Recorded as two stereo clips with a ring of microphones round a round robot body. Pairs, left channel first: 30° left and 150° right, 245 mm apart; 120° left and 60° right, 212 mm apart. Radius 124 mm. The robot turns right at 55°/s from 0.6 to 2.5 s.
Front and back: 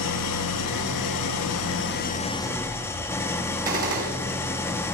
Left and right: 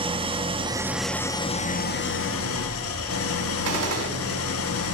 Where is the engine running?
5° left, 1.2 m; by 5.0 s 110° left, 1.2 m.